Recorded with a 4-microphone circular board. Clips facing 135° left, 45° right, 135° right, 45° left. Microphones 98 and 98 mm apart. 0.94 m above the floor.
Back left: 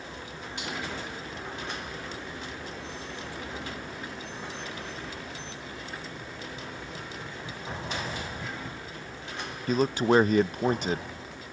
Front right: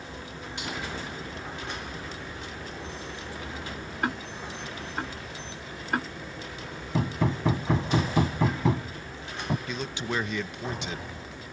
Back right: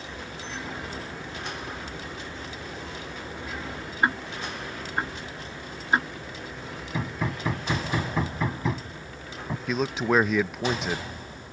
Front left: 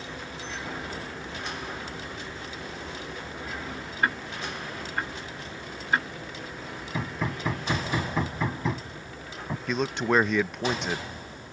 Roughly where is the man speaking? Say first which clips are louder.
Back left 9 dB, back right 1 dB; behind left.